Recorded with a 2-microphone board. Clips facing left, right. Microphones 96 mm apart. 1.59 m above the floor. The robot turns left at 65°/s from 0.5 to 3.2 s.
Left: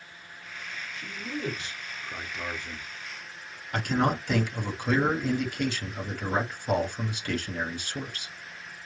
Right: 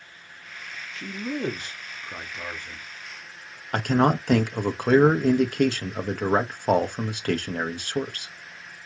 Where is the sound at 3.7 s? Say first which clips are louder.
Right 5 dB; 55° right (ahead or behind), 1.2 m.